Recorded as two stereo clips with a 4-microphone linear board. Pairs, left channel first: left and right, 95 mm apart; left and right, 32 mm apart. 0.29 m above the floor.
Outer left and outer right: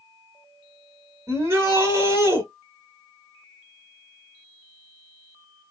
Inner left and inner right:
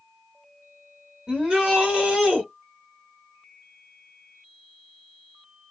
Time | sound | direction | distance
1.3 | a shout | 30° right (ahead or behind) | 1.1 m